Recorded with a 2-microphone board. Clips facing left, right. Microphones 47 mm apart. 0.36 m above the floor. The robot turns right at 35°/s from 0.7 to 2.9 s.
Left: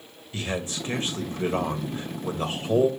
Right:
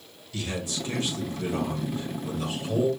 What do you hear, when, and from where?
0.3 s a man speaking: 50° left, 1.6 m; by 2.9 s 125° left, 1.6 m